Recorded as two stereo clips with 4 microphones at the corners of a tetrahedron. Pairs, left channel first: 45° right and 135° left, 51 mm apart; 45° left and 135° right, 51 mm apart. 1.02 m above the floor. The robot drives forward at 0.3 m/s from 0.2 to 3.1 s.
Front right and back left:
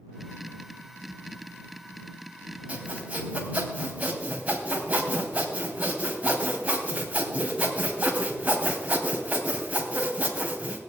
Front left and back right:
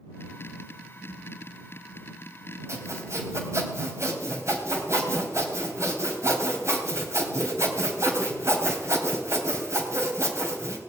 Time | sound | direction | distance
2.7 | sawing | 160° right | 3 m